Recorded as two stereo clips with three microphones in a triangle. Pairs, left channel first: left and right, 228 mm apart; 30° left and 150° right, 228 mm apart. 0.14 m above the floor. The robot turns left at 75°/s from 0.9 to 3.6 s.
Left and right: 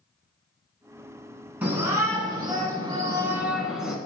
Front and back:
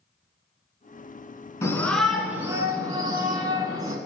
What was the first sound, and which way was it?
A shout, 25° right.